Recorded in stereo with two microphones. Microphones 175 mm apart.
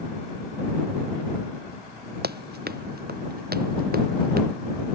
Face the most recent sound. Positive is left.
turn(degrees=-60)  # may be behind; listen again after turning